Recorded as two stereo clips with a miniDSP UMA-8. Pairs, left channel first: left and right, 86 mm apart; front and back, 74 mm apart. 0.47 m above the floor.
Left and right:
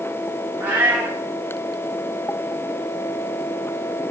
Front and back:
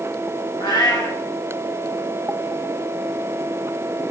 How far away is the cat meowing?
About 3.5 m.